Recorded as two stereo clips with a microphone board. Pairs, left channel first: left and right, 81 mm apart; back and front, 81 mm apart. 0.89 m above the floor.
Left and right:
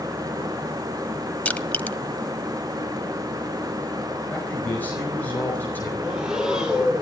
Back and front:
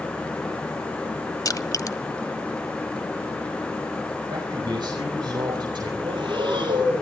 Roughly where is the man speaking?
Ahead left.